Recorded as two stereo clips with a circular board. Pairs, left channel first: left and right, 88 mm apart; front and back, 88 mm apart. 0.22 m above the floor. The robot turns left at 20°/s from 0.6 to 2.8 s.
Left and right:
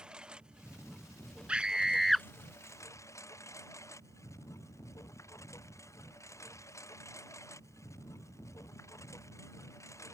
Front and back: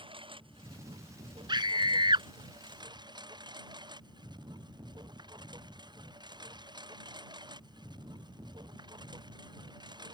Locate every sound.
0.0 s a lawn mower: 170° right; by 10.1 s 145° left
1.5 s a scream: 165° right; by 2.3 s straight behind